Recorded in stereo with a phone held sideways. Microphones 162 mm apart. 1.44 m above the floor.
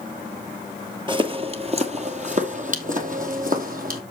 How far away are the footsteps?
About 1.6 m.